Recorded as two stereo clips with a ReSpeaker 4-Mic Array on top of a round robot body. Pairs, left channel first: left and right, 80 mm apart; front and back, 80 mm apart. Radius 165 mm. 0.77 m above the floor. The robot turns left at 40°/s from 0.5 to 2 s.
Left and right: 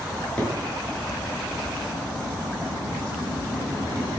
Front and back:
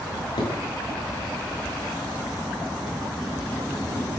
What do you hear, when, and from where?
0.1 s a drawer: 15° left, 6 m; by 4.1 s 45° right, 6 m